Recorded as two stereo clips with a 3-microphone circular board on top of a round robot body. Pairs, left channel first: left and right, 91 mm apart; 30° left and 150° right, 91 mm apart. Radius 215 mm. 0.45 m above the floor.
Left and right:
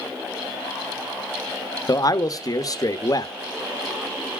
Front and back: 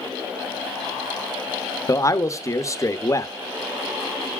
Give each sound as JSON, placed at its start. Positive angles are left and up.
{"t": 1.9, "sound": "a man speaking", "azimuth_deg": 70, "distance_m": 1.0}